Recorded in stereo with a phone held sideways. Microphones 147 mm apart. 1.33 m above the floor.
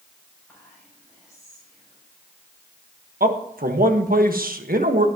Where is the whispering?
5° left (ahead or behind), 7 m.